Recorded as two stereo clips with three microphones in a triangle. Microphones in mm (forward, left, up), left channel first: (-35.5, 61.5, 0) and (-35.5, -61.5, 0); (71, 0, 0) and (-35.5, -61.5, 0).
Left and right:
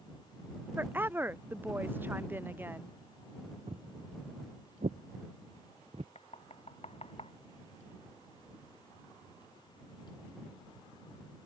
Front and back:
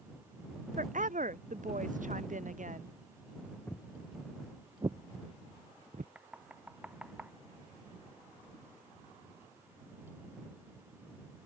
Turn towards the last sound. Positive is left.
turn(degrees=130)